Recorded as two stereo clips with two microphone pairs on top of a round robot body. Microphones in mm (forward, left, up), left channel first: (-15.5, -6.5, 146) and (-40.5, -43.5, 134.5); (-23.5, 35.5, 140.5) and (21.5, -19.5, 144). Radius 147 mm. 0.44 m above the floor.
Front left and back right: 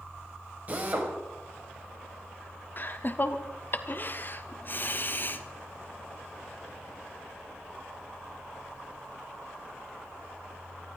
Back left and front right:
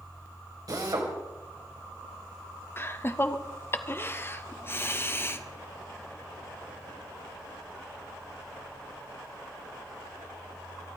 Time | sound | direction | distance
0.7 | a drill | 80° right | 3 m
2.8 | laughter | 95° left | 1.4 m